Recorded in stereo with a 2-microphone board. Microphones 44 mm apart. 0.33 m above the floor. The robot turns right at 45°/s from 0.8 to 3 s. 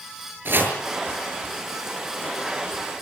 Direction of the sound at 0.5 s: 50° right (ahead or behind).